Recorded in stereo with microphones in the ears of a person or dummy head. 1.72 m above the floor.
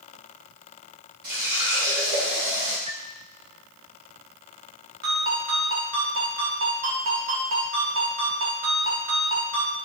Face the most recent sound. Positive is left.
turn(degrees=-75)  # may be behind; listen again after turning